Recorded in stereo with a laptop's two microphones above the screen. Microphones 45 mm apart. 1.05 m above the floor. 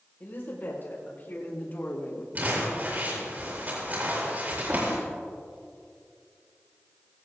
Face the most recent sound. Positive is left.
turn(degrees=-35)  # may be behind; listen again after turning